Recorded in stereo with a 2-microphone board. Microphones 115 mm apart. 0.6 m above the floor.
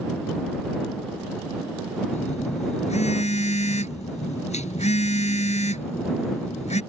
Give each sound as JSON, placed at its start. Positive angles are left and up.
{"t": 2.1, "sound": "a phone buzzing", "side_deg": 90}